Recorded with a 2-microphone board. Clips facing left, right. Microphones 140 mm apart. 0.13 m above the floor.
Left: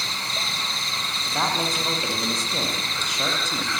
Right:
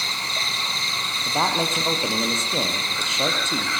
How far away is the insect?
About 9.5 m.